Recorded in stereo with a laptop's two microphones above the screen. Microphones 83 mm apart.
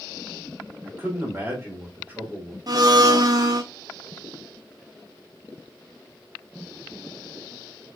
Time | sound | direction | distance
0.8 | a man speaking | 25° right (ahead or behind) | 1.7 m
2.7 | a blender | 45° right (ahead or behind) | 0.8 m